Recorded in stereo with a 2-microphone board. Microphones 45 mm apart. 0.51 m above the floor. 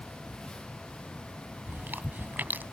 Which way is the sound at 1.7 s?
45° right (ahead or behind).